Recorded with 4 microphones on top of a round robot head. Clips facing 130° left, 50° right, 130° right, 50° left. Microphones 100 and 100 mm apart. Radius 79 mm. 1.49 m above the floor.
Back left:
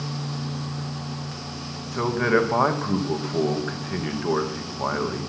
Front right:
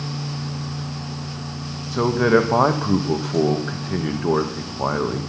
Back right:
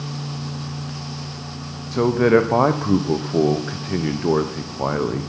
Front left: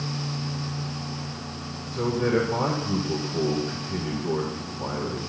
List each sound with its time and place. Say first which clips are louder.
1.9 s a man speaking: front right 5 dB, back right 8 dB; 125° right, 0.9 m